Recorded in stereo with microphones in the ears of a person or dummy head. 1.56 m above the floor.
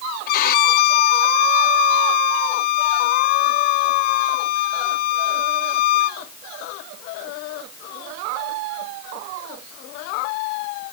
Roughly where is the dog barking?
No dog barking in this recording.